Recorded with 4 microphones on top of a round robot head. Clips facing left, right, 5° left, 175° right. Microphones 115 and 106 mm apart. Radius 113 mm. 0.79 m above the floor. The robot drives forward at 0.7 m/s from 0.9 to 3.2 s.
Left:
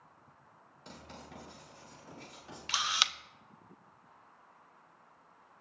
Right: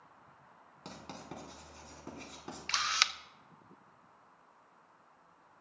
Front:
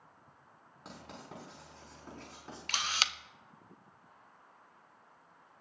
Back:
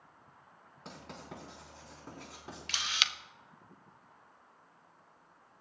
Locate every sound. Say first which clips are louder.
0.8 s writing: right 3 dB, back 1 dB; 80° right, 4 m; by 2.6 s 95° right, 4 m
2.7 s a camera shutter: even, front 3 dB; 15° left, 0.9 m; by 3.1 s 25° left, 0.7 m